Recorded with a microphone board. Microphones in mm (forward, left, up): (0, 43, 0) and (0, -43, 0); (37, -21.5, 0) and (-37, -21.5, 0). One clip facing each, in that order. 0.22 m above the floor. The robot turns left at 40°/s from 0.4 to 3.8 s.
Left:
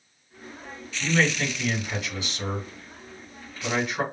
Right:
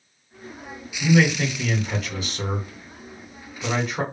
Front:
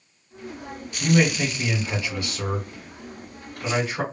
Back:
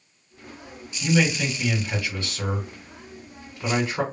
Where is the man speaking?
20° right, 2 m; by 4.0 s 130° right, 2 m.